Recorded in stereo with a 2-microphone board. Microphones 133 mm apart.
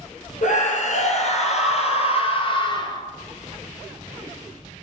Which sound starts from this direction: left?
A scream, at 0.4 s.